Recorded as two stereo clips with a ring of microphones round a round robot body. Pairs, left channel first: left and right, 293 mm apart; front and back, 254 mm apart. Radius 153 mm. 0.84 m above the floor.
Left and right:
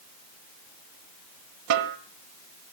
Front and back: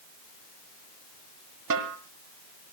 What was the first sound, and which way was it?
A snare drum, 130° right.